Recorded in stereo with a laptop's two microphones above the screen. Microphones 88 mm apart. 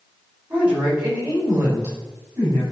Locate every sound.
0.5 s a woman speaking: 15° right (ahead or behind), 5 m; by 2.6 s 30° right (ahead or behind), 5 m